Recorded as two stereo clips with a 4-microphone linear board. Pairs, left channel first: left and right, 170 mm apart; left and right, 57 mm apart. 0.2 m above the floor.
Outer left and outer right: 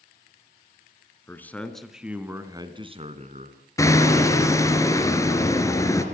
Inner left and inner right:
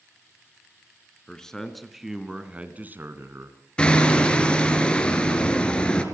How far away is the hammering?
About 3 m.